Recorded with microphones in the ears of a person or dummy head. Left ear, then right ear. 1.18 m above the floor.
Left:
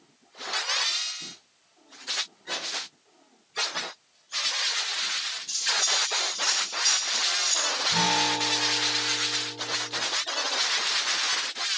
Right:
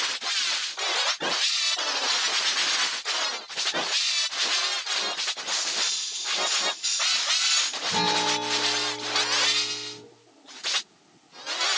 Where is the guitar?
40° right (ahead or behind), 5.5 m.